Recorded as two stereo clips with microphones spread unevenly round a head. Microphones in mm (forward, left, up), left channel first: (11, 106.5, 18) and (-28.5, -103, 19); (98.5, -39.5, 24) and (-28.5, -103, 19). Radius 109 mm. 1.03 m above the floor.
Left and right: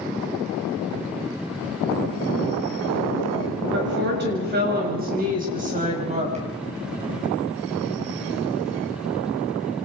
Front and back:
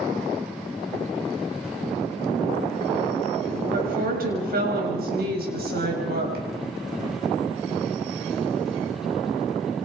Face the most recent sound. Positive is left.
turn(degrees=-160)